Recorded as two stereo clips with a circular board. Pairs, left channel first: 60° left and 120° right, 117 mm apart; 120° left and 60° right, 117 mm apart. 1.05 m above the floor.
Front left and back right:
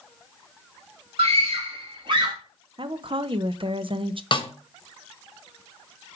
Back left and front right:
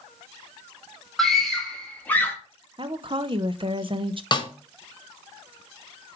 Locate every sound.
1.2 s a scream: 150° right, 2.5 m; by 2.4 s 170° right, 1.7 m
2.8 s a woman speaking: 90° right, 0.6 m
4.3 s a snare drum: 85° left, 1.0 m